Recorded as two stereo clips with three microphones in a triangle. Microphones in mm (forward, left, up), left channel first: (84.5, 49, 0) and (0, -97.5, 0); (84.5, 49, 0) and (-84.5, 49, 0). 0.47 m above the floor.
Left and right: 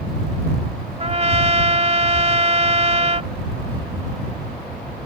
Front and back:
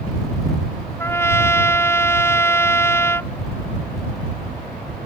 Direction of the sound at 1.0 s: 70° right.